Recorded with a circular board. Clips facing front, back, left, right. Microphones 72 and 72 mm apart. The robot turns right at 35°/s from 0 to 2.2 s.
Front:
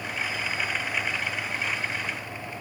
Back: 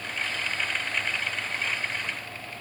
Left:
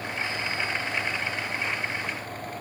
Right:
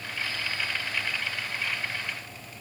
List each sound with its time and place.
Only background noise.